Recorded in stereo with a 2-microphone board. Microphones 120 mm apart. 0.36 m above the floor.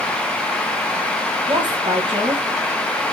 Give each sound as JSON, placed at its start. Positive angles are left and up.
{"t": 1.5, "sound": "a woman speaking", "side_deg": -45, "distance_m": 3.0}